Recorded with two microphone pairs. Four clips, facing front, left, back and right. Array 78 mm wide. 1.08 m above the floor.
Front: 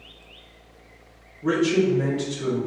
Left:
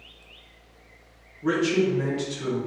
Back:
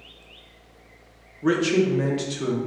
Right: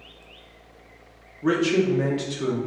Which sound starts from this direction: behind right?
A man speaking, at 1.4 s.